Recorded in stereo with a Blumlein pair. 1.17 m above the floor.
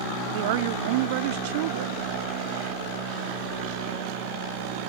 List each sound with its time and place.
0.3 s a woman speaking: 50° right